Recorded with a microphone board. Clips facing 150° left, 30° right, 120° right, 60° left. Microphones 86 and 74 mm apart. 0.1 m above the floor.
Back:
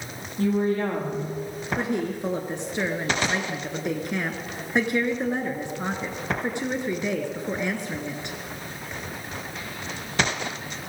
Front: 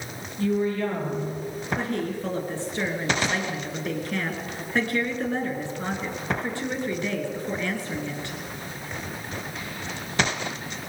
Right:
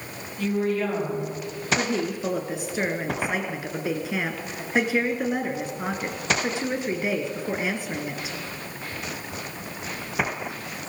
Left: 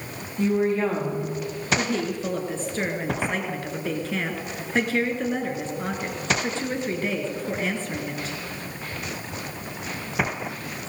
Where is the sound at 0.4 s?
115° left, 6.5 m.